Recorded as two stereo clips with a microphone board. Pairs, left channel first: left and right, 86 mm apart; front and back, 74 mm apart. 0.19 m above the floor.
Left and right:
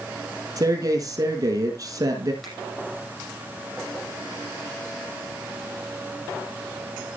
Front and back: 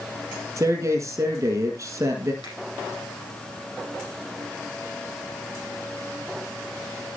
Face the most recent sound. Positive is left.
turn(degrees=0)